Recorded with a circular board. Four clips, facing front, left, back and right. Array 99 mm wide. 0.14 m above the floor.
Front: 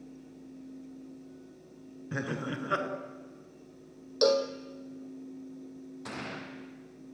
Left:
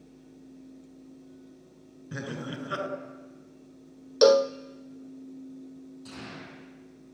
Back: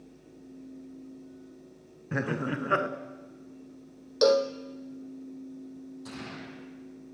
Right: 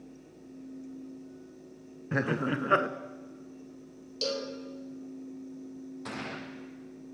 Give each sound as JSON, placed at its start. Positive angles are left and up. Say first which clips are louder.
{"t": 2.1, "sound": "laughter", "louder": "right 7 dB, back 4 dB", "azimuth_deg": -110, "distance_m": 1.5}
{"t": 4.2, "sound": "a cowbell", "louder": "left 16 dB, back 3 dB", "azimuth_deg": 100, "distance_m": 1.1}
{"t": 6.0, "sound": "a gunshot", "louder": "right 4 dB, front 3 dB", "azimuth_deg": -50, "distance_m": 8.5}